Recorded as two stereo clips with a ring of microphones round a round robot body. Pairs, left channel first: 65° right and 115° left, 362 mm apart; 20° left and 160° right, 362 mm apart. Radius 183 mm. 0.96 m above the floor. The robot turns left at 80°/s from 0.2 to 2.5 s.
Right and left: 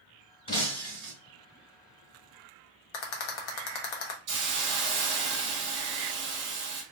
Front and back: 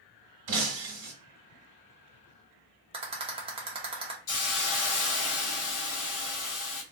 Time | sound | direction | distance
0.5 | breaking glass | 140° right | 1.6 m
2.9 | a rattle | 80° right | 1.0 m
4.3 | a hiss | 50° left | 1.3 m